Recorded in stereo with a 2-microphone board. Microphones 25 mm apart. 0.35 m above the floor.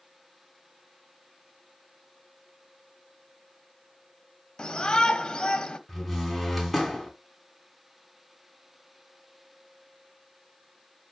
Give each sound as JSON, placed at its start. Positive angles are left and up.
{"t": 4.6, "sound": "a shout", "side_deg": 35, "distance_m": 1.5}
{"t": 5.9, "sound": "a door slam", "side_deg": -5, "distance_m": 2.5}